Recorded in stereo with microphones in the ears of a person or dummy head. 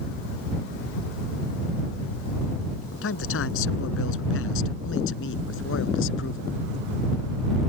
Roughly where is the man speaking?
Left.